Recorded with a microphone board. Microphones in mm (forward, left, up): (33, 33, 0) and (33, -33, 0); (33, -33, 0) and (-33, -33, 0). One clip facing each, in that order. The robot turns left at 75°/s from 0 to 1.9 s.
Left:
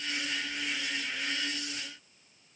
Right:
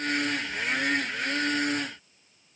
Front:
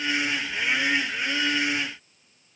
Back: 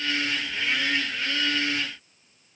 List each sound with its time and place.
Only background noise.